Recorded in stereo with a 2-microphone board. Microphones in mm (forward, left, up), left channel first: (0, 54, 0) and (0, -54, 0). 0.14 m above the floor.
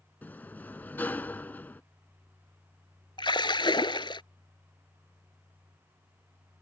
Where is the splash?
50° left (ahead or behind).